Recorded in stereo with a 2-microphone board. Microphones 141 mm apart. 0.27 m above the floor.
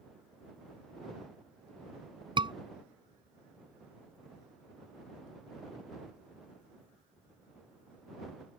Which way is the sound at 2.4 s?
35° right (ahead or behind).